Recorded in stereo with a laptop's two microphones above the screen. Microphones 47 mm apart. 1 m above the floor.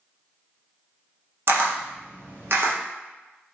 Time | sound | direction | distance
1.5 | a camera shutter | 55° right (ahead or behind) | 0.6 m